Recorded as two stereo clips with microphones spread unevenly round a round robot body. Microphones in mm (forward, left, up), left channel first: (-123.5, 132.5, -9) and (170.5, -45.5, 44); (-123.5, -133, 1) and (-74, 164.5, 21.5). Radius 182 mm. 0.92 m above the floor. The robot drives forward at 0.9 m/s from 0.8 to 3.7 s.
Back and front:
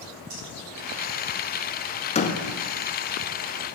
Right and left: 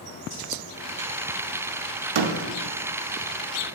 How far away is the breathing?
About 3 m.